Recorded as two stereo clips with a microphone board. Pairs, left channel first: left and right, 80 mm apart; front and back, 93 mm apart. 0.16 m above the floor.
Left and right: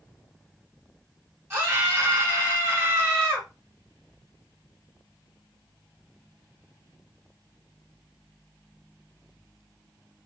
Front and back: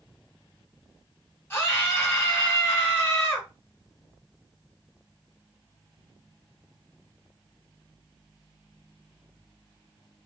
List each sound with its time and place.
1.5 s a scream: 50° right, 1.6 m